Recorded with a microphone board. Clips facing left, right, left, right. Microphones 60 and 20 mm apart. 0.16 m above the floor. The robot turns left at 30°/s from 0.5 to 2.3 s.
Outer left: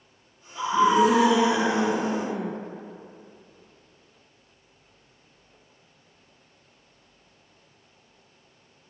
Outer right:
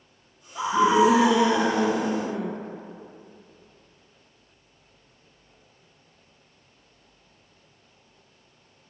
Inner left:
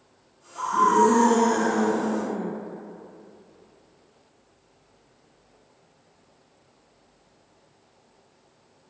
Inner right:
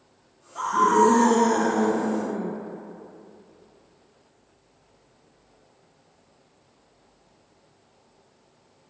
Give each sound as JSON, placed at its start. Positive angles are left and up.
{"t": 0.6, "sound": "a scream", "azimuth_deg": -160, "distance_m": 1.8}